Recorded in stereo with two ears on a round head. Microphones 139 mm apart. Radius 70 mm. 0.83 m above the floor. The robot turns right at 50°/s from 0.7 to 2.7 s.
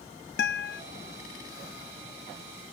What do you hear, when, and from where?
0.4 s a guitar: 75° left (ahead or behind); by 0.8 s 65° left (ahead or behind)